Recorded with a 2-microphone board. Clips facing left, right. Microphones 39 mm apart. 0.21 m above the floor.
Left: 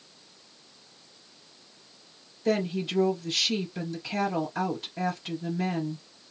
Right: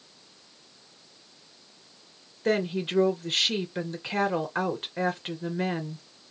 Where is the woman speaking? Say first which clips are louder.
Right 1 dB; 45° right (ahead or behind), 2.5 m.